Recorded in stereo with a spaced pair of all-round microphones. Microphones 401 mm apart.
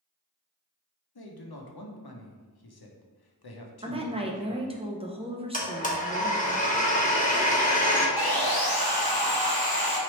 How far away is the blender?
About 0.7 m.